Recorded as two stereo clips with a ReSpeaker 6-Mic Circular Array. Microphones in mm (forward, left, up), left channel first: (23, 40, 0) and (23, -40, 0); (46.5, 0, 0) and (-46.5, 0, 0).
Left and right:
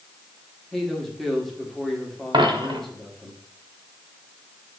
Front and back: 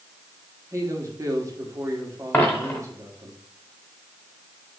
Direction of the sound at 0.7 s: 175° left.